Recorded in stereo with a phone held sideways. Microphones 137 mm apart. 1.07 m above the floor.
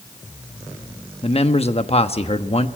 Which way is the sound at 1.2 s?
45° left (ahead or behind).